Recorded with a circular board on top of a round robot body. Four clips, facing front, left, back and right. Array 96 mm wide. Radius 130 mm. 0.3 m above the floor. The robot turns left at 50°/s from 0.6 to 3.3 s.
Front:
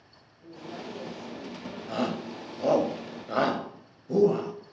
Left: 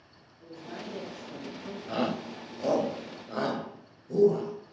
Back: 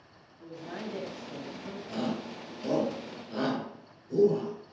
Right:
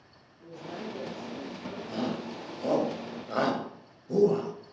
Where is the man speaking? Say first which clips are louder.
Right 2 dB, back 1 dB; 170° right, 4 m; by 2.9 s 75° left, 4 m.